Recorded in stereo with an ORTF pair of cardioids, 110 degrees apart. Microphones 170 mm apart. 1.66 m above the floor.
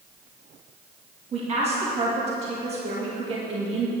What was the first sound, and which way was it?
A woman speaking, 35° right.